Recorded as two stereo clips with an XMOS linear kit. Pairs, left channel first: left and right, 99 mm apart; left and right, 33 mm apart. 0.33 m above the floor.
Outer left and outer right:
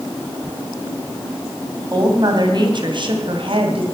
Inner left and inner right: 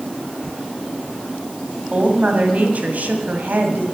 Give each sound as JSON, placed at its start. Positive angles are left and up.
{"t": 1.9, "sound": "a woman speaking", "side_deg": -40, "distance_m": 2.5}